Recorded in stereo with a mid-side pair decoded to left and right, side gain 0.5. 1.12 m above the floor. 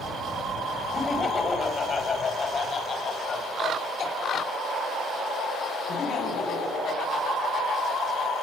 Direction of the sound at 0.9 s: 30° left.